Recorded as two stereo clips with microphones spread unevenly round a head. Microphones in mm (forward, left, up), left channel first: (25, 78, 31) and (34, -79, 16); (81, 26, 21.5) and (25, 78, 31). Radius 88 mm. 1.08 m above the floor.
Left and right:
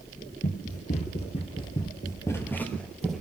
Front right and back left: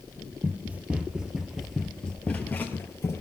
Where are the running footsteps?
85° left, 1.7 m; by 3.2 s 10° left, 1.6 m.